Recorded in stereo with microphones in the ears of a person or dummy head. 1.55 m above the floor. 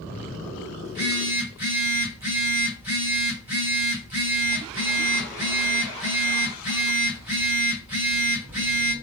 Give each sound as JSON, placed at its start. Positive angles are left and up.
{"t": 0.8, "sound": "a phone buzzing", "side_deg": -5, "distance_m": 1.6}